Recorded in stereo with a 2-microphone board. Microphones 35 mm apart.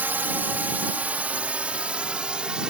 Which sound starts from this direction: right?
A drone, at 0.0 s.